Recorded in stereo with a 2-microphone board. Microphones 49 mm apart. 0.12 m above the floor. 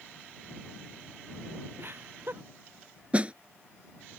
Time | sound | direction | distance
1.8 | laughter | 50° right (ahead or behind) | ?
3.1 | a snare drum | 25° right (ahead or behind) | ?